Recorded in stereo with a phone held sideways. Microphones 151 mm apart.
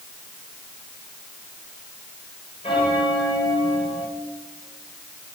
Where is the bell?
40° left (ahead or behind), 2 m.